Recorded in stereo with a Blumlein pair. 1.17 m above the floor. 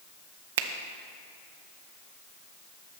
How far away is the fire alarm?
No fire alarm in this recording.